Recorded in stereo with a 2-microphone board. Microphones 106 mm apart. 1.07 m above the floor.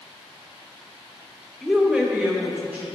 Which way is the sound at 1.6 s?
Centre (ahead or behind).